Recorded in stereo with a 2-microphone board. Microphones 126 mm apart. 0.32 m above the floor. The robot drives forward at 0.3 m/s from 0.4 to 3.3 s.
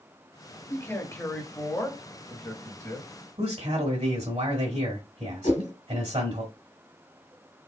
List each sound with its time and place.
0.7 s a man speaking: 20° left (ahead or behind), 1.3 m; by 3.1 s 15° left (ahead or behind), 1.7 m
3.4 s a man speaking: 45° right (ahead or behind), 1.6 m
5.4 s a whoosh: 80° left, 1.6 m